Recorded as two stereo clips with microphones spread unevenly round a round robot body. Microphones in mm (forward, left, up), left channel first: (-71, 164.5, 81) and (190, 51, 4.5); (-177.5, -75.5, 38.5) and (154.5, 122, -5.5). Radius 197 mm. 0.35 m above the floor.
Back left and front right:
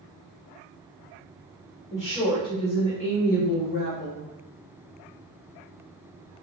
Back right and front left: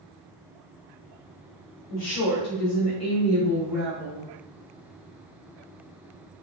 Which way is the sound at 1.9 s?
105° right.